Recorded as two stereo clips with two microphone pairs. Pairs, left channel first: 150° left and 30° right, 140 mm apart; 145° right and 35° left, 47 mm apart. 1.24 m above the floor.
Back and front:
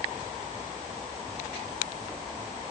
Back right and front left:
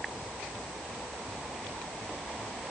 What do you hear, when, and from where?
Only background noise.